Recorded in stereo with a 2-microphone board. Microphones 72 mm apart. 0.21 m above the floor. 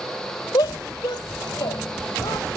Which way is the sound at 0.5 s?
75° left (ahead or behind).